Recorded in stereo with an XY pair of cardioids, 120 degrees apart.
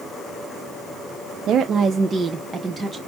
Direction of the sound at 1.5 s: 65° right.